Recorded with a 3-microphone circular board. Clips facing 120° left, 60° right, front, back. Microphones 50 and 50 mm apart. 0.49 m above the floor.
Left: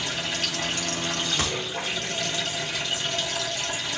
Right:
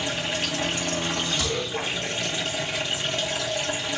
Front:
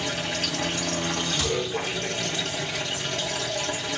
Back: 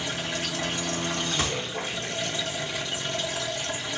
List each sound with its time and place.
0.0 s running water: 10° left, 1.7 m
1.4 s a gunshot: 140° left, 0.6 m